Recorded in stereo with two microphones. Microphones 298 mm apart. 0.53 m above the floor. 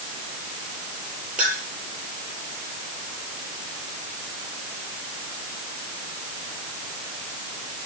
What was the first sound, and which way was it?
A clink, 5° right (ahead or behind).